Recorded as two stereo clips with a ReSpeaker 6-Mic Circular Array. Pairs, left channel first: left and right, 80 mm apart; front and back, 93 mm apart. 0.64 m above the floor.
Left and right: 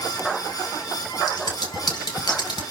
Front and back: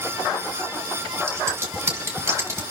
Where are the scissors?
120° left, 3.5 m.